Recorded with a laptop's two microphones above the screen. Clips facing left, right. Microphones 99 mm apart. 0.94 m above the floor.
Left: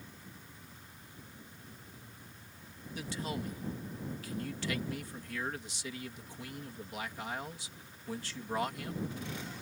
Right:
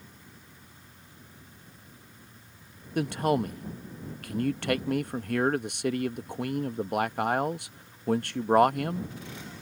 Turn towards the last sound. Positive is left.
turn(degrees=-60)  # may be behind; listen again after turning